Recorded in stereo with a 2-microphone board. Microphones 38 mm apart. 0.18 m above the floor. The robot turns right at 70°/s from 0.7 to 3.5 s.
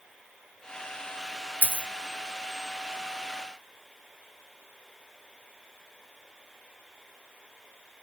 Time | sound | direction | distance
1.6 | a dropped coin | 50° left (ahead or behind) | 0.6 m